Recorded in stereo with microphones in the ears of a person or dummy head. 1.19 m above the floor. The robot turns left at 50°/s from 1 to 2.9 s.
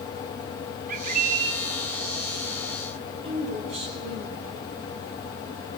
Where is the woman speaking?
35° right (ahead or behind), 3 m.